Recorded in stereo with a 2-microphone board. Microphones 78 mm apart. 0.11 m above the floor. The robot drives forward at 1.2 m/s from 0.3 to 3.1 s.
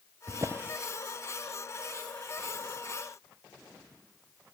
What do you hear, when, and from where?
0.3 s a drawer: 45° right (ahead or behind), 0.7 m; by 0.8 s 25° right (ahead or behind), 1.1 m